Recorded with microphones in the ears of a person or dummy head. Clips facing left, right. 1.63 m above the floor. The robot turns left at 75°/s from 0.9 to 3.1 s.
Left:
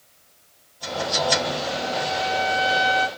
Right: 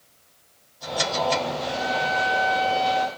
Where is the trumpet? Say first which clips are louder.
Even; 115° right, 1.8 m; by 3.1 s 140° left, 1.8 m.